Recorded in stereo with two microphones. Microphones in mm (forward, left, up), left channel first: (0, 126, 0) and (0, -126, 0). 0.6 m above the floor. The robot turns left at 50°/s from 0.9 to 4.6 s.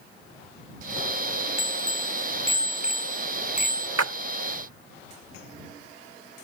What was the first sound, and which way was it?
A bicycle bell, 110° right.